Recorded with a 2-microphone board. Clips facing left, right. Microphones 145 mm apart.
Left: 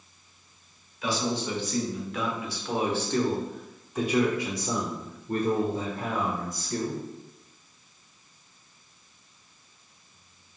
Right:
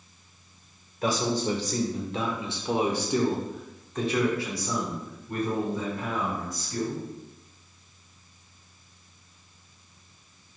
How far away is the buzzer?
I don't hear a buzzer.